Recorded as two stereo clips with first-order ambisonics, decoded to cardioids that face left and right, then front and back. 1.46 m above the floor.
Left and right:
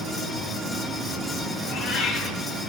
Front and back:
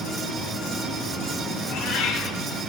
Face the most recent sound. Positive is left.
turn(degrees=15)